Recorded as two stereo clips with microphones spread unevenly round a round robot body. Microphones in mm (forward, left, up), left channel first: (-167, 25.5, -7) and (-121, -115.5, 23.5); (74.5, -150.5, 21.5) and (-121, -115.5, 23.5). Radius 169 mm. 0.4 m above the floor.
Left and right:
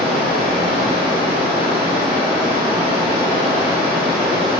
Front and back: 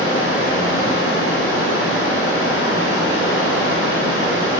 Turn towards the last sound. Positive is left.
turn(degrees=-40)